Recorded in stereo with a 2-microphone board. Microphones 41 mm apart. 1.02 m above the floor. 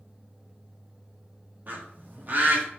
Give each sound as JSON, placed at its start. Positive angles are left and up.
{"t": 1.7, "sound": "a bird", "side_deg": -45, "distance_m": 1.0}